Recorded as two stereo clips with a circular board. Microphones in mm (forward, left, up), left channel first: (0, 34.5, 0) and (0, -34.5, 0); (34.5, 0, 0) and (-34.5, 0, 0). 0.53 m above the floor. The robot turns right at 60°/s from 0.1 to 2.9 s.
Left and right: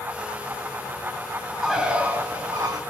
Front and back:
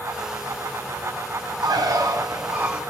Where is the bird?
Straight behind, 3.5 m; by 2.8 s 110° right, 3.5 m.